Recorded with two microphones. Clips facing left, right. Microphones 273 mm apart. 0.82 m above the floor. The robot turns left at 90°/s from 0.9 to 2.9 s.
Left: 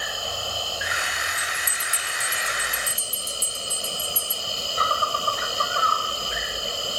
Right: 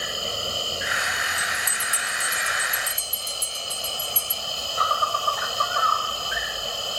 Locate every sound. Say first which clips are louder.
0.0 s an insect: right 2 dB; 25° right; by 7.0 s 155° left
1.4 s a bell: right 2 dB; 40° left (ahead or behind); by 4.4 s 85° right